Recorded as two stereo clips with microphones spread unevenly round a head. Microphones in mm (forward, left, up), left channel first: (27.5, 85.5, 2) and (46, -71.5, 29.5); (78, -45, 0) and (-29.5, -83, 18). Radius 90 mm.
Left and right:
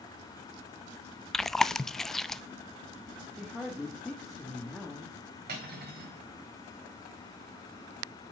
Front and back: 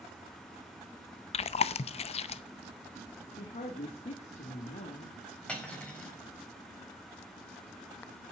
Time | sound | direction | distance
1.3 | chewing | 15° left | 0.5 m
3.4 | a woman speaking | 10° left | 1.6 m
5.5 | cutlery clinking | 60° right | 3.5 m